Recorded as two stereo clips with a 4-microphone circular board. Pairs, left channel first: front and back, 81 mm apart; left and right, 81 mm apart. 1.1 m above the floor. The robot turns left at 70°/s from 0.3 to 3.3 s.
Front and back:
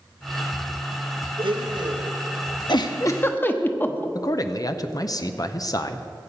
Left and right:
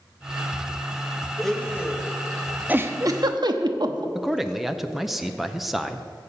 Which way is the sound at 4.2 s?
5° right.